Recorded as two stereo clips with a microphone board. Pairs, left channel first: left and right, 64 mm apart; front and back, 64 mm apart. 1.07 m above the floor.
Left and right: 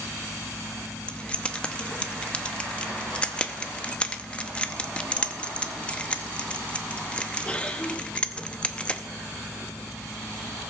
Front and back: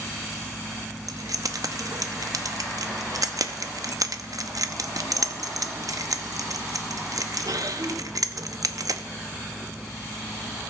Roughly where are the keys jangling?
Behind.